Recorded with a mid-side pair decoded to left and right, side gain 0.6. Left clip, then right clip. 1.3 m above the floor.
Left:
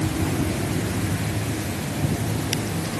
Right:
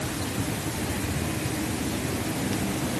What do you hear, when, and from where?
Only background noise.